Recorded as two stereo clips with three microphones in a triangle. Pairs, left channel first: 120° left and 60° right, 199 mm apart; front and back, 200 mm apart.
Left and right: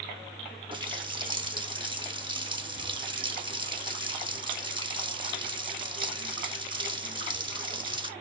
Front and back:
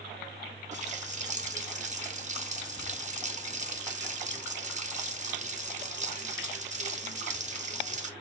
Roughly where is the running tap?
Behind right.